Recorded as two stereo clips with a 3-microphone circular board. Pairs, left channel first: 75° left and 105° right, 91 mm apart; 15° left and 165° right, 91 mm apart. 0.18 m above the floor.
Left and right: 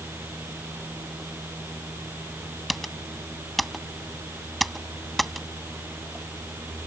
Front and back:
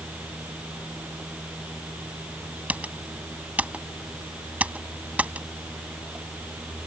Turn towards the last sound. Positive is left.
turn(degrees=165)